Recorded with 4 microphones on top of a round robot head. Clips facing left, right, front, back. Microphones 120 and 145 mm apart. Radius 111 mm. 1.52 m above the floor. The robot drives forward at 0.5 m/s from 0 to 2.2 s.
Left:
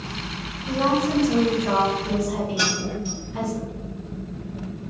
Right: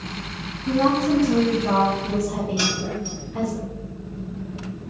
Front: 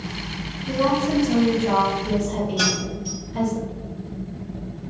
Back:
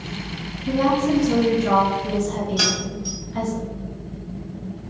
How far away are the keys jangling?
About 1.2 m.